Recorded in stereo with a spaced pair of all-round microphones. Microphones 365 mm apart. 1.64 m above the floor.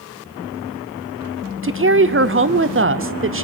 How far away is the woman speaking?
About 0.7 m.